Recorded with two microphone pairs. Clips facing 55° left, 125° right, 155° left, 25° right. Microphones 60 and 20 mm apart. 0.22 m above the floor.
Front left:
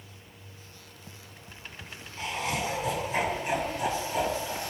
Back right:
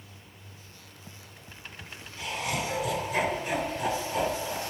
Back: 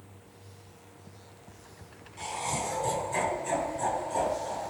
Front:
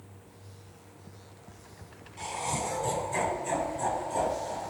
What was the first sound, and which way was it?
Laughter, 70° left.